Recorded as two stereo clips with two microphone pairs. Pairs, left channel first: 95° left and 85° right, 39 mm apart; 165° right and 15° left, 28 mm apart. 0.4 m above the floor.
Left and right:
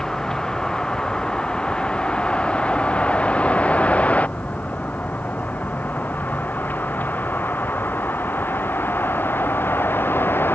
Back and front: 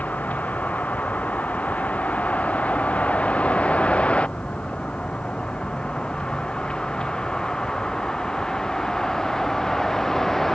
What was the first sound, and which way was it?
A vehicle, 170° left.